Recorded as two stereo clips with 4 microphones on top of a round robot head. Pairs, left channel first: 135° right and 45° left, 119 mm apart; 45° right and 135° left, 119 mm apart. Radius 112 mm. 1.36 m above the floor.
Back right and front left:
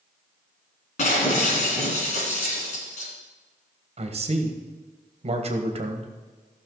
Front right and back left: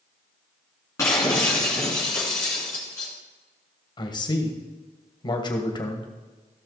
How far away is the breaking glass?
About 3 m.